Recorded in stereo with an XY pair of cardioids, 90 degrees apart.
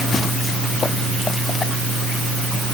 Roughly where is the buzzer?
No buzzer in this recording.